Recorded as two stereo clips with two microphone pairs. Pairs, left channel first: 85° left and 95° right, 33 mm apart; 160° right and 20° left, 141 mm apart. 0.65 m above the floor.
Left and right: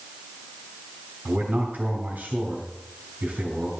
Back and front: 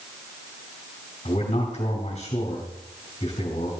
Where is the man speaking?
120° right, 3.5 m.